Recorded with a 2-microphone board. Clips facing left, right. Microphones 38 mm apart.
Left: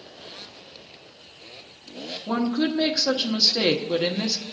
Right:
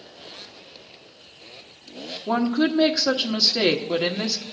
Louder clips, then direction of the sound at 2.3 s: Right 3 dB; 20° right (ahead or behind).